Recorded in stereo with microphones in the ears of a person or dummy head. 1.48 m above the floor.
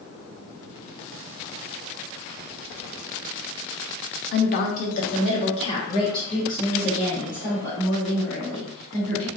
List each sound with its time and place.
4.3 s a woman speaking: 60° left (ahead or behind), 0.7 m; by 9.3 s 15° left (ahead or behind), 3.5 m